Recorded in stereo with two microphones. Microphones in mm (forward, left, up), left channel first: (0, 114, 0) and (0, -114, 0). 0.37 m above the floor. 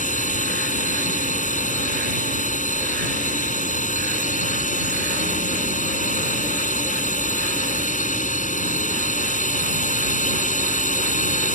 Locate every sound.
0.0 s a drone: 35° left (ahead or behind)